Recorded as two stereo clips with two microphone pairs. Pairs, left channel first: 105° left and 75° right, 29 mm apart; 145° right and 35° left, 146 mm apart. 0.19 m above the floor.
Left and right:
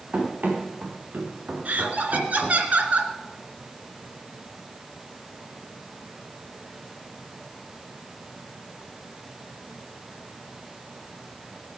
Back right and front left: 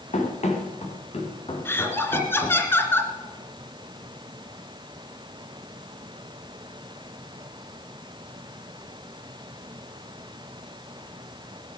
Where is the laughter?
75° right, 2.5 m.